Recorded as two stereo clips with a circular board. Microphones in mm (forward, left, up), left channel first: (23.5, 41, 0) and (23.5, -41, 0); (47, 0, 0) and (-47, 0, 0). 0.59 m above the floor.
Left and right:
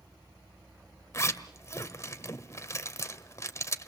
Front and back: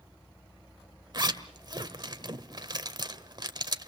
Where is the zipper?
140° left, 1.4 m.